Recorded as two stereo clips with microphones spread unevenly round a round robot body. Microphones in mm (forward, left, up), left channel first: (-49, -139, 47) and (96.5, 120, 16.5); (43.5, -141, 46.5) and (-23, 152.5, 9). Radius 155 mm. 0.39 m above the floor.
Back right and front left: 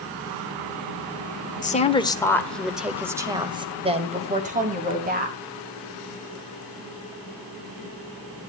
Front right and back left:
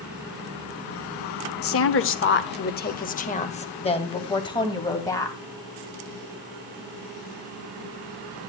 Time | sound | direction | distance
1.6 | a woman speaking | 60° right | 1.2 m